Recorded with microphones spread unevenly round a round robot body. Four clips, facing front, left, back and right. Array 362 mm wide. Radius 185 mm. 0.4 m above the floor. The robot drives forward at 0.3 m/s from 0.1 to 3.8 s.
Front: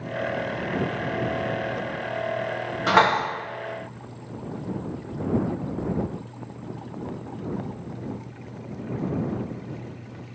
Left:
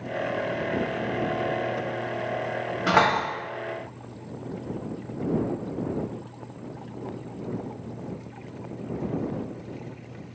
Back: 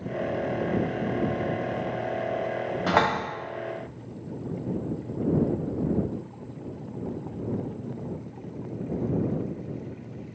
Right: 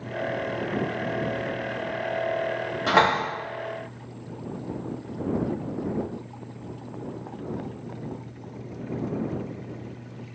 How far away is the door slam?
About 2 m.